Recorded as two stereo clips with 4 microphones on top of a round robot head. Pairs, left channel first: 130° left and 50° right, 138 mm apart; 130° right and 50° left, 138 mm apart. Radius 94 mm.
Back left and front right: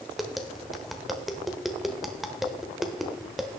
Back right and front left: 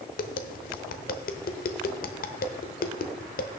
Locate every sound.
0.2 s tapping: 140° right, 0.9 m